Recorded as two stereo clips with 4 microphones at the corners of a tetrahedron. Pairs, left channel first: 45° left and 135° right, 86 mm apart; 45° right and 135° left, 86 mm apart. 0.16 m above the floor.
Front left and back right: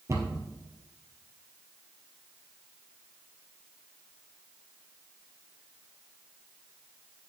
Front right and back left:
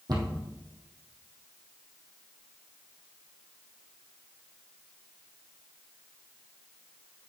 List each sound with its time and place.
0.1 s a cupboard door: 170° left, 2.5 m